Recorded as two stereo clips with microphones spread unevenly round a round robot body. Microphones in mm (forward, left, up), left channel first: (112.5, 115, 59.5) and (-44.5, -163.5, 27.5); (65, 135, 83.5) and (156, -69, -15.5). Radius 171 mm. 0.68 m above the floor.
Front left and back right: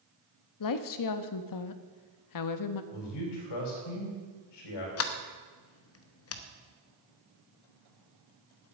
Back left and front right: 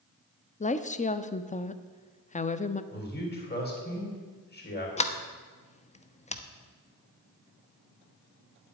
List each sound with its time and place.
0.6 s a woman speaking: 40° left, 0.9 m
2.9 s a man speaking: 60° left, 4 m
5.0 s a sliding door: 30° left, 1.1 m